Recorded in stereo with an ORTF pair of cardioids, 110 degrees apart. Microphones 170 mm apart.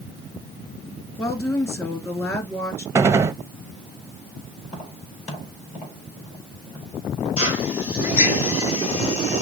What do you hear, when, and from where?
1.2 s a woman speaking: 15° left, 2.0 m
3.0 s a gunshot: 15° right, 0.7 m
4.6 s tapping: 50° left, 5 m
7.4 s a drill: 60° left, 4 m